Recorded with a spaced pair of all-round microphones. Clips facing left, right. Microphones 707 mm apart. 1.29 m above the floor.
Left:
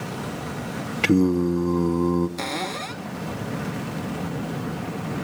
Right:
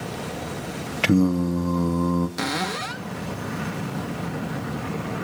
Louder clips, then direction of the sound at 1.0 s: Left 1 dB; 15° right (ahead or behind).